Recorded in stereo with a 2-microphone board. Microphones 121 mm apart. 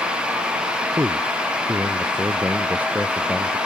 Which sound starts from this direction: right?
A man speaking, at 1.0 s.